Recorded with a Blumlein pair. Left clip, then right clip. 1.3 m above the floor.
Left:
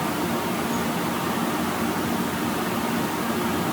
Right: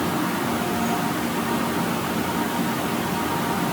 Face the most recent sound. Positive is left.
No sound to turn to.